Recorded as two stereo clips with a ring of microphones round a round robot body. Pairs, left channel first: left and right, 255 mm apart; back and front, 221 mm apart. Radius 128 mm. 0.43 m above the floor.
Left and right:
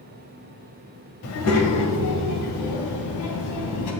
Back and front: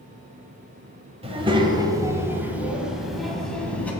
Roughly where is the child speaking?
Ahead left.